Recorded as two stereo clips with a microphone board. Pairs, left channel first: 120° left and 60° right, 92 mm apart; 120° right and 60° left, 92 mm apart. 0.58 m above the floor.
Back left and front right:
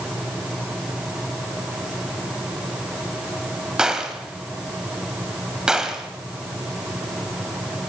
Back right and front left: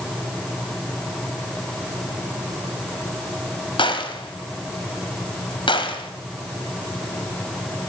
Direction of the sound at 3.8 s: 145° right.